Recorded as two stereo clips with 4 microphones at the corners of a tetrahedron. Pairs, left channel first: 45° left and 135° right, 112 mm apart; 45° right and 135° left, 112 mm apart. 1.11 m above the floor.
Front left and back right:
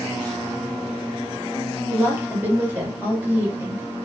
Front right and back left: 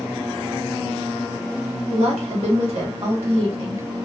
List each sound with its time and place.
1.9 s a woman speaking: 155° left, 1.2 m